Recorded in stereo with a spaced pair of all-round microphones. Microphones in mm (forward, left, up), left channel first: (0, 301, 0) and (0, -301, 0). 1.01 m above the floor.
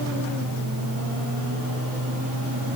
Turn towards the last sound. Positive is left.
turn(degrees=-30)  # may be behind; listen again after turning